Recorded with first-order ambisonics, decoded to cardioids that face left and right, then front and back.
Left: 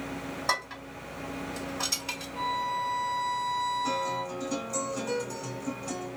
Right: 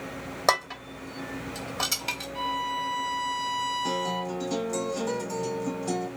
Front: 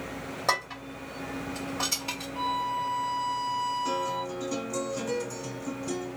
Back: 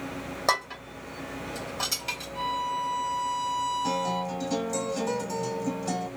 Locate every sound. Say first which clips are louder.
0.5 s dishes clattering: right 6 dB, back 2 dB; 105° right, 1.9 m
2.4 s a violin: left 1 dB, front 1 dB; 105° right, 0.9 m
3.8 s a guitar: right 1 dB, back 1 dB; 150° right, 2 m